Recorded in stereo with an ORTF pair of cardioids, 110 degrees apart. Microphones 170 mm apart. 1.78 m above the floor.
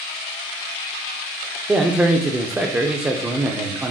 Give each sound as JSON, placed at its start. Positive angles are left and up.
{"t": 1.7, "sound": "a man speaking", "azimuth_deg": -10, "distance_m": 0.5}